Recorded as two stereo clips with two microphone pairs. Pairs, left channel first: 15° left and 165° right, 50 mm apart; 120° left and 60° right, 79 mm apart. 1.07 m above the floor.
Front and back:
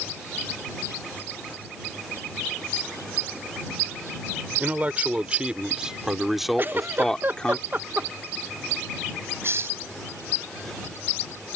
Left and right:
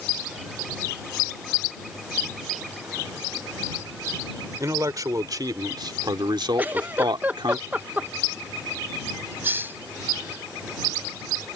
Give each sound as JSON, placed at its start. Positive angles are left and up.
{"t": 4.6, "sound": "a man speaking", "azimuth_deg": -105}
{"t": 6.6, "sound": "a giggle", "azimuth_deg": -125}
{"t": 9.4, "sound": "a hiss", "azimuth_deg": -125}